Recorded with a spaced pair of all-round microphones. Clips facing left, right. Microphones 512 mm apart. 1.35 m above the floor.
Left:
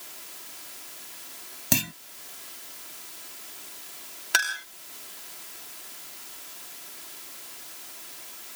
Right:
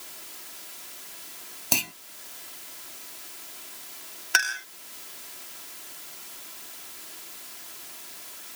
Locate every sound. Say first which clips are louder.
1.7 s a clunk: left 5 dB; 40° left (ahead or behind)
4.3 s a clink: even; 55° left (ahead or behind)